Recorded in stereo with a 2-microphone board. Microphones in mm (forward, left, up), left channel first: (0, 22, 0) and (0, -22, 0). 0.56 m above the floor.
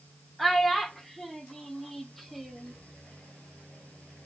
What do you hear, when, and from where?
0.4 s a child speaking: centre (ahead or behind), 0.6 m